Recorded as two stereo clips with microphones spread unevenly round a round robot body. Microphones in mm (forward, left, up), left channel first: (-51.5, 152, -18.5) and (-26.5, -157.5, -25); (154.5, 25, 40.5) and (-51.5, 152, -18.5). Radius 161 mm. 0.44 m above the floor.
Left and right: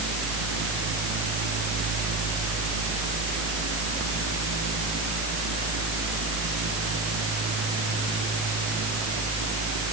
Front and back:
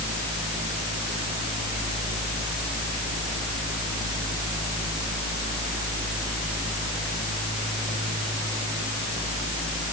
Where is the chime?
I don't hear a chime.